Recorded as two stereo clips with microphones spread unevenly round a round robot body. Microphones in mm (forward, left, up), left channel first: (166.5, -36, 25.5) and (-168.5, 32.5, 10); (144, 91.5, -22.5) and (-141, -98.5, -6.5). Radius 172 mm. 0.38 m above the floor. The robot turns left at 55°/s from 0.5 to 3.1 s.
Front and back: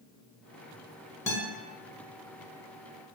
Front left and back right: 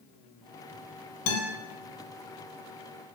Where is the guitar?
70° left, 1.2 m; by 1.5 s 60° left, 1.2 m.